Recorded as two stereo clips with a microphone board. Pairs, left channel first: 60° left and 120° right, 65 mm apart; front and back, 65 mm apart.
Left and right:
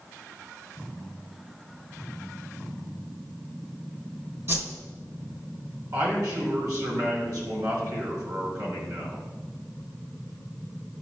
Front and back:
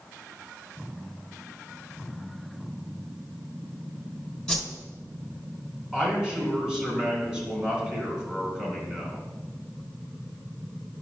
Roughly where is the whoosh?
Right.